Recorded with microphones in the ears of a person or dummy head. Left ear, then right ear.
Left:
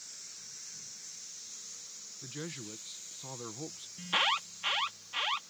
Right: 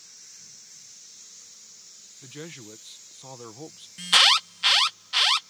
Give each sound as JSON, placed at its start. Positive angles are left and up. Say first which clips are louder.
{"t": 2.2, "sound": "a man speaking", "louder": "right 2 dB", "side_deg": -20}
{"t": 4.0, "sound": "an alarm", "louder": "right 12 dB", "side_deg": -60}